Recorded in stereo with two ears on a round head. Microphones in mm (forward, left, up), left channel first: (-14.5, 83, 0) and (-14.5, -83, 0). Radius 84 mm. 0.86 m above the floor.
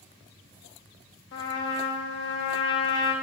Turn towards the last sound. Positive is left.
turn(degrees=60)  # may be behind; listen again after turning